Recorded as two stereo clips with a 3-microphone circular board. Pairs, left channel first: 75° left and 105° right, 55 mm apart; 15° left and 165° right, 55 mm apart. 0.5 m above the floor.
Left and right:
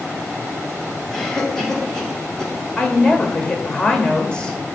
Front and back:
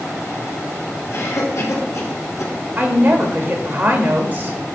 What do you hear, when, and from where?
1.1 s a cough: 5° right, 2.5 m
2.8 s a woman speaking: 145° left, 1.6 m